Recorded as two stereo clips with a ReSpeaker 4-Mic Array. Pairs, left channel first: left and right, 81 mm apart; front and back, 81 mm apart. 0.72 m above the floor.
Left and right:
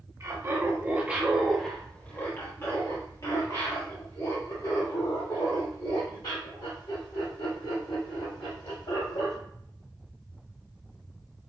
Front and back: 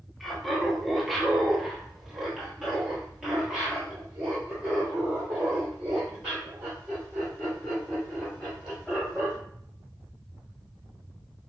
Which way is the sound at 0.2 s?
85° right.